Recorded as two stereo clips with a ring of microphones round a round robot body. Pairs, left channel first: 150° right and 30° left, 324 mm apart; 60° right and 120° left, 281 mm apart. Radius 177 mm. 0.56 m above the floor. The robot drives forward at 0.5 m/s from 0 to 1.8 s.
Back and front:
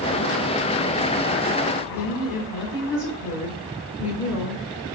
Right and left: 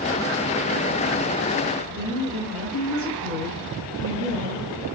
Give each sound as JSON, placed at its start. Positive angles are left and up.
{"t": 1.9, "sound": "a woman speaking", "azimuth_deg": -140, "distance_m": 1.7}